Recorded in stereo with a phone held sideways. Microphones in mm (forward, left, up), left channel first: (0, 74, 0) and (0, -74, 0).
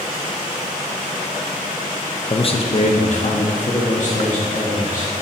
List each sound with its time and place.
2.3 s a man speaking: 35° left (ahead or behind), 0.6 m; by 5.1 s 60° left (ahead or behind), 2.5 m